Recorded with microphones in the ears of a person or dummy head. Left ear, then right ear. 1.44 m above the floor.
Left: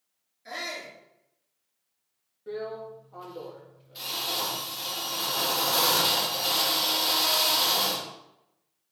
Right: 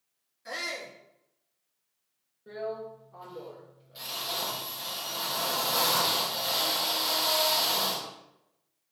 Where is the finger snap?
No finger snap in this recording.